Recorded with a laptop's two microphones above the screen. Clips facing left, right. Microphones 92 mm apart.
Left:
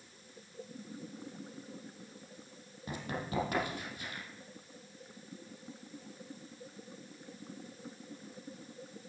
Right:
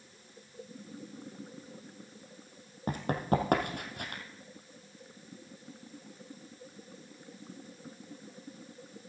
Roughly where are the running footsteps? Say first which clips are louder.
Right 9 dB; right.